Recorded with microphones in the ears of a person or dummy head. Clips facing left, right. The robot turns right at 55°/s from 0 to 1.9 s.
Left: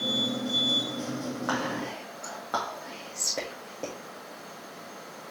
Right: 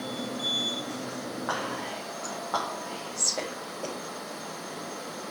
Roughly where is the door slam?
No door slam in this recording.